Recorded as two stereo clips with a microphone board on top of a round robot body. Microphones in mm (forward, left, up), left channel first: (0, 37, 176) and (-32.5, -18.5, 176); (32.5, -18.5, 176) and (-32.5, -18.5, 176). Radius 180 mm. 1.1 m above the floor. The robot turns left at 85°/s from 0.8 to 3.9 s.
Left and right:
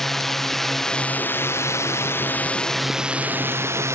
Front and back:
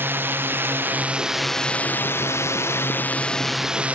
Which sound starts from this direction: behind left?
A drone, at 0.0 s.